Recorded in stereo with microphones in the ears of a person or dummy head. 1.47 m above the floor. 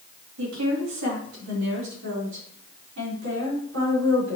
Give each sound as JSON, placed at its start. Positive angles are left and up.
{"t": 0.4, "sound": "a woman speaking", "side_deg": -80, "distance_m": 3.0}